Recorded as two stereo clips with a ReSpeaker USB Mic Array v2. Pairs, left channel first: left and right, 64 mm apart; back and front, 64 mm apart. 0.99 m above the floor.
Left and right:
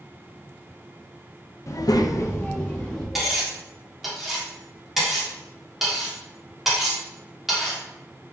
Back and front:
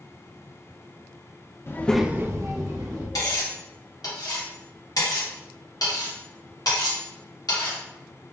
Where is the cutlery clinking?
175° right, 1.5 m.